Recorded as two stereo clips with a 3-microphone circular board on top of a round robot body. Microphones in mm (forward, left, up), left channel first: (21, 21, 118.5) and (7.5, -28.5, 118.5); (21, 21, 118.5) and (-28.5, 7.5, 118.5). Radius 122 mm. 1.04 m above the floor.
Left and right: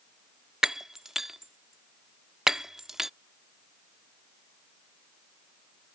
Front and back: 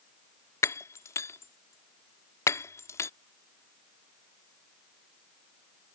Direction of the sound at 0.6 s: 25° right.